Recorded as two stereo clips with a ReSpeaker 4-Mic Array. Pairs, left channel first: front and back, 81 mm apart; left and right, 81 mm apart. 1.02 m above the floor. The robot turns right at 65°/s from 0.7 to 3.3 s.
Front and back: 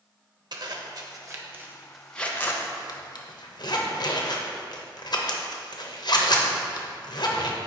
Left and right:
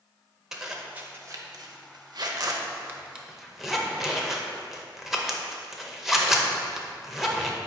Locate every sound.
0.5 s a zipper: 170° right, 0.7 m; by 7.6 s 5° right, 0.7 m